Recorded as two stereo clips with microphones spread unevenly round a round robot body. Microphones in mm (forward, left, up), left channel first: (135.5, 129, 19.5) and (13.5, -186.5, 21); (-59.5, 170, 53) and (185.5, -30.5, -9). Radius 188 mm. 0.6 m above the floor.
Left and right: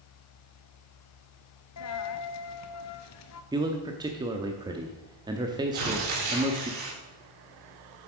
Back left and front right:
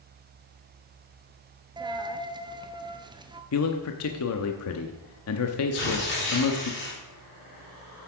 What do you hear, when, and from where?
1.8 s a dropped coin: 45° left, 0.8 m
3.5 s a man speaking: 175° left, 0.7 m
5.7 s tearing paper: 155° right, 3.5 m